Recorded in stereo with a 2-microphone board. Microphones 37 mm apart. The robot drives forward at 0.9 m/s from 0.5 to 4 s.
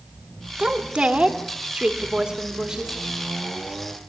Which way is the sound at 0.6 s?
30° right (ahead or behind).